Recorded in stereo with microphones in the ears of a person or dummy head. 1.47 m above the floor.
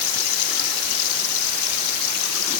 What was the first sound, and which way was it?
Only background noise.